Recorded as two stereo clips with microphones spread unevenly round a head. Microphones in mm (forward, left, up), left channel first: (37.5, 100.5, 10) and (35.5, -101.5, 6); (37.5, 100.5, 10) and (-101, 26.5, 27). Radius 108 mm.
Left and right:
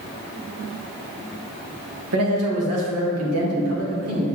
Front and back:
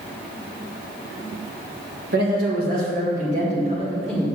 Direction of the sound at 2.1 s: 110° right.